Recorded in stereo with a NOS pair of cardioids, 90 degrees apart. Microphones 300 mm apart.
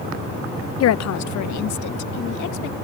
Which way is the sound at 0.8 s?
55° left.